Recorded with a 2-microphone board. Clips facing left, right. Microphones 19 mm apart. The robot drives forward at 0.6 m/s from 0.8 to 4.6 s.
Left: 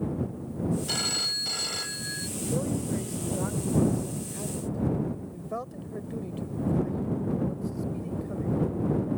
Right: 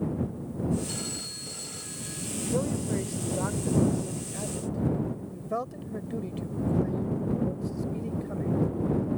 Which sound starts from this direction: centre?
A man speaking, at 2.4 s.